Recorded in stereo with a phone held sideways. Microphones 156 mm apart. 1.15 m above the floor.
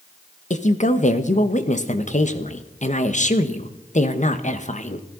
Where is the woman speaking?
50° left (ahead or behind), 1.5 m.